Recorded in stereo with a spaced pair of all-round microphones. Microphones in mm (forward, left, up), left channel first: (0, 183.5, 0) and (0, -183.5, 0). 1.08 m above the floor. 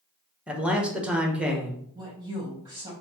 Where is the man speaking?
5° right (ahead or behind), 1.0 m.